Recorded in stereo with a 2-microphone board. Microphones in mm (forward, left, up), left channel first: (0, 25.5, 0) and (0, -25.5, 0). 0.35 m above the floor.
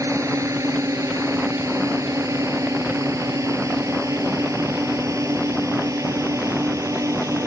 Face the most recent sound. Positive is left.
turn(degrees=-70)  # may be behind; listen again after turning